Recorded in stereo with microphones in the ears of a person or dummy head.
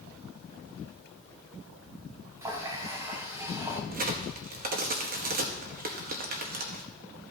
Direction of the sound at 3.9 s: 50° right (ahead or behind).